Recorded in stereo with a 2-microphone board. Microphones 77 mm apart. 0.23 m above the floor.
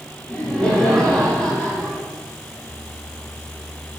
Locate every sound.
0.3 s laughter: 15° left (ahead or behind), 4.5 m